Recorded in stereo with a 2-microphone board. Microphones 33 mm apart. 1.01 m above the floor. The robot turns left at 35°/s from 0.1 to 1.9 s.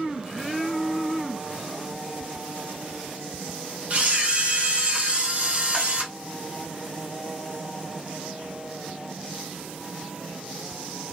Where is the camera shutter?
45° right (ahead or behind), 0.7 m.